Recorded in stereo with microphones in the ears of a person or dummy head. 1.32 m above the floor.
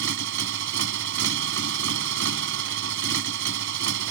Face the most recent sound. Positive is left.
turn(degrees=-75)  # may be behind; listen again after turning